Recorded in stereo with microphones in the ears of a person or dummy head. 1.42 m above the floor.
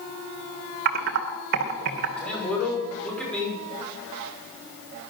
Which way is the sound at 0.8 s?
55° right (ahead or behind).